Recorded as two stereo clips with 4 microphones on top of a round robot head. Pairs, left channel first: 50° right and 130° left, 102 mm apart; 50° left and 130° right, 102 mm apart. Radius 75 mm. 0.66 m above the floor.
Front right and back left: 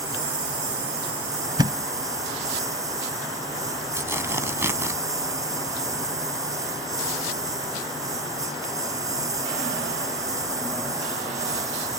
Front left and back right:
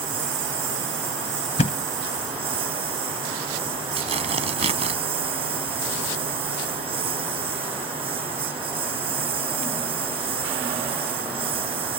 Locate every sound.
0.0 s a lawn mower: 170° right
1.6 s a thud: 75° left
4.0 s tearing paper: 160° right